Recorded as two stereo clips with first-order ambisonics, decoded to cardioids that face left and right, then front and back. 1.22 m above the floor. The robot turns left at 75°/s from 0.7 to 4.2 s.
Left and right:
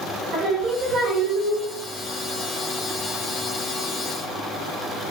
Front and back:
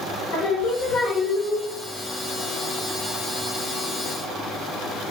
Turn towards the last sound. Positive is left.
turn(degrees=65)